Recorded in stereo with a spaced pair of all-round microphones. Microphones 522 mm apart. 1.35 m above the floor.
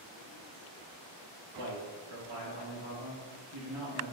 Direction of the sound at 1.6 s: 75° right (ahead or behind).